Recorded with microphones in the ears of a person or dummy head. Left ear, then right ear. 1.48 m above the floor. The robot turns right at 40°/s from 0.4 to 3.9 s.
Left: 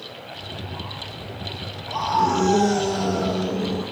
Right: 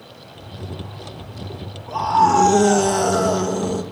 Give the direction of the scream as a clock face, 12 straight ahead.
6 o'clock.